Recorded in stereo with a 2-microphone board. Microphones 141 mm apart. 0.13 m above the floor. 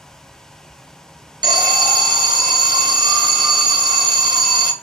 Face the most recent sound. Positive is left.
turn(degrees=-30)  # may be behind; listen again after turning